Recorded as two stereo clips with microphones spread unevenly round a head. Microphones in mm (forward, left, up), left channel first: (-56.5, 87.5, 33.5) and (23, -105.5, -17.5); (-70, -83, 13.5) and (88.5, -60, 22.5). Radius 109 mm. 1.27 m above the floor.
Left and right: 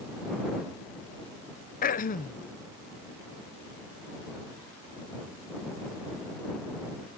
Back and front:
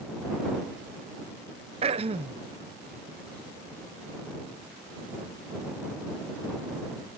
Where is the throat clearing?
55° left.